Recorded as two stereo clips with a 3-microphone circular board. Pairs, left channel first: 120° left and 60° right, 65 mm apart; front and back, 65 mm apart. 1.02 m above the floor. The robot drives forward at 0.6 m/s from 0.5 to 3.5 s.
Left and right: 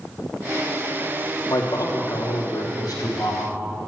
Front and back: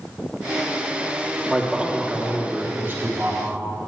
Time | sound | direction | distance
1.5 | a man speaking | 95° left | 1.4 m